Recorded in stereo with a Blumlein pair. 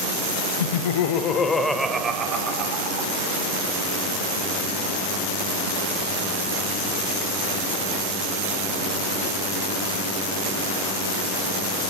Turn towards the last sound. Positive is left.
turn(degrees=-45)